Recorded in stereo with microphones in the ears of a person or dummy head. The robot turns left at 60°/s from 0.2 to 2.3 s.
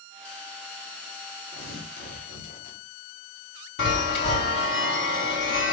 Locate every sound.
1.5 s tearing paper: 110° left, 2.5 m; by 2.8 s 65° left, 2.5 m
3.8 s a chime: 60° left (ahead or behind), 1.7 m